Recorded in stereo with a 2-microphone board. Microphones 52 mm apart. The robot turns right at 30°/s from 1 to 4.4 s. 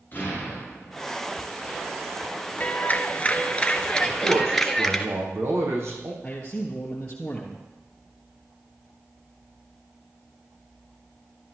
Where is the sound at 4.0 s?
75° right (ahead or behind), 4.5 m; by 6.1 s 65° right (ahead or behind), 4.5 m.